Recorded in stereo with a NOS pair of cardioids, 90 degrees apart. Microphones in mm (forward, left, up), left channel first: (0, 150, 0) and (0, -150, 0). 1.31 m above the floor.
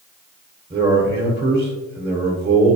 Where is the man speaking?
20° right, 0.9 m.